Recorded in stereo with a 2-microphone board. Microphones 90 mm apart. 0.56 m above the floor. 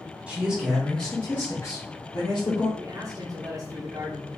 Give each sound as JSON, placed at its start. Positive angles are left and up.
{"t": 0.3, "sound": "a man speaking", "side_deg": -15, "distance_m": 1.3}
{"t": 2.8, "sound": "a man speaking", "side_deg": -35, "distance_m": 0.9}